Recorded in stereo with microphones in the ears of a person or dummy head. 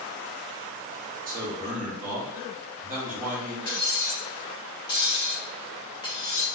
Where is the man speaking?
40° right (ahead or behind), 0.8 m.